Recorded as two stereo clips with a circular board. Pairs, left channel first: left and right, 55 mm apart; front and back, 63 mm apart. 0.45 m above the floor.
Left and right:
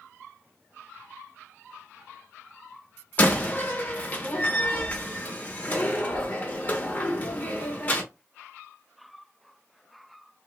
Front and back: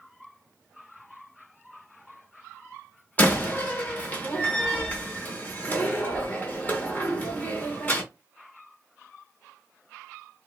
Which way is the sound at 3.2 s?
45° left.